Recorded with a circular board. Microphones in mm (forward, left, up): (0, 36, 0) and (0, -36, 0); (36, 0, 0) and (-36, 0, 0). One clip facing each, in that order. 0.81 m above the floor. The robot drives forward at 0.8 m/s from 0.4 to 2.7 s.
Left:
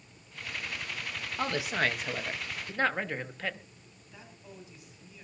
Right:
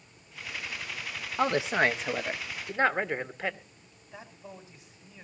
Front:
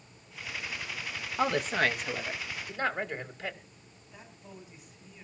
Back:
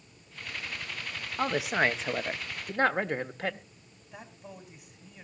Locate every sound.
1.4 s a woman speaking: 75° right, 0.8 m; by 3.6 s 160° right, 1.3 m
4.1 s a man speaking: 150° right, 4.5 m